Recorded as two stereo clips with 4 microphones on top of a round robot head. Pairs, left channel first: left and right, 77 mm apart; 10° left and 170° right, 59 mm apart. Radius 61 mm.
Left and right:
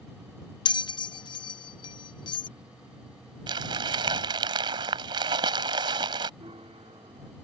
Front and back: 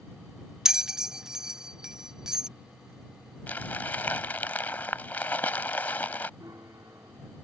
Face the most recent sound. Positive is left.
turn(degrees=-115)